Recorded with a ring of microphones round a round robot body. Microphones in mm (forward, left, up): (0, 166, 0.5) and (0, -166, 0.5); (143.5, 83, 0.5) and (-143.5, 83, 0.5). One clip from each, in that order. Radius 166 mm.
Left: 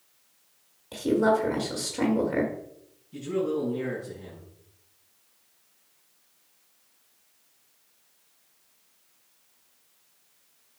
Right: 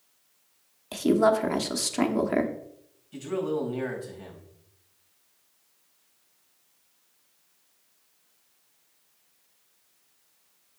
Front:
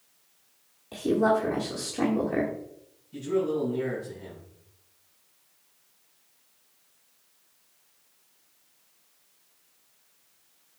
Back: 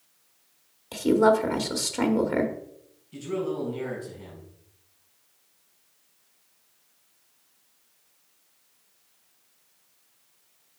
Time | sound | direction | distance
0.9 | a woman speaking | 125° right | 1.1 m
3.1 | a man speaking | 120° right | 4.5 m